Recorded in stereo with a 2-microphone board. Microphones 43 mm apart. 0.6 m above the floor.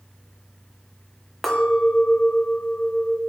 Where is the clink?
5° right (ahead or behind), 0.7 m.